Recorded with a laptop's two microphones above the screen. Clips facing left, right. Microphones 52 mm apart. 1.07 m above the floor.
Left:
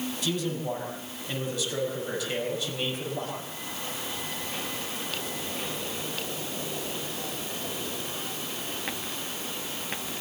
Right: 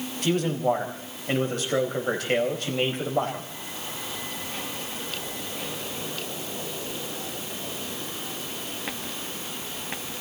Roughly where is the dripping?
I don't hear dripping.